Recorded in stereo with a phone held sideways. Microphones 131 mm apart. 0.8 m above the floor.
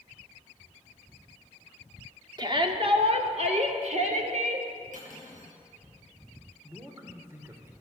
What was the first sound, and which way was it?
A shout, 35° right (ahead or behind).